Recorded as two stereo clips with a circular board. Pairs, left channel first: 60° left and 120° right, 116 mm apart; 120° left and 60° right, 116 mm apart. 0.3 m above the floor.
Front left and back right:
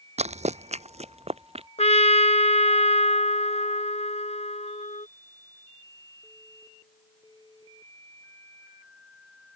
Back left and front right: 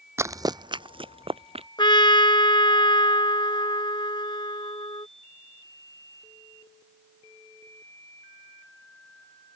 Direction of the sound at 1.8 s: 75° left.